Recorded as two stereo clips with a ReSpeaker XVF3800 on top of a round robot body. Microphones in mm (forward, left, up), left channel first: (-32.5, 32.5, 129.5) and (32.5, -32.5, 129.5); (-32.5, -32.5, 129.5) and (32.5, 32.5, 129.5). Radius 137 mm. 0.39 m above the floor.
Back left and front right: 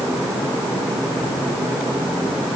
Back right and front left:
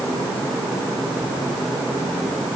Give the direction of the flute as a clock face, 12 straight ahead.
I don't hear a flute.